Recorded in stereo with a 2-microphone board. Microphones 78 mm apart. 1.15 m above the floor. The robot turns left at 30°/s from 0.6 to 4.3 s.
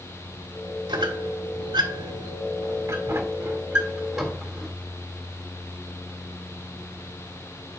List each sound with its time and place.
0.9 s a squeak: 80° right, 2.5 m; by 4.7 s centre (ahead or behind), 2.5 m